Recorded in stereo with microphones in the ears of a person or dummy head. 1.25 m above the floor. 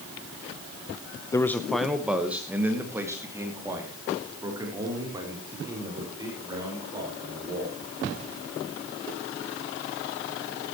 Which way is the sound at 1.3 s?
10° left (ahead or behind).